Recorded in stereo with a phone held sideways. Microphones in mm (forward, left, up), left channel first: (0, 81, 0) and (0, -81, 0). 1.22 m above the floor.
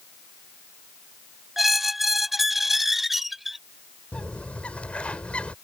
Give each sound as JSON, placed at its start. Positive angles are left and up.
{"t": 1.6, "sound": "a squeak", "side_deg": 0}
{"t": 4.1, "sound": "a bird", "side_deg": 5}